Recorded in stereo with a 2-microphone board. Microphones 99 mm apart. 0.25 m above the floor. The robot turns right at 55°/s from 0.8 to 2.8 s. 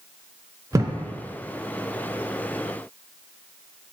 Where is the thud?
35° right (ahead or behind), 0.5 m; by 1.0 s 25° right (ahead or behind), 0.5 m.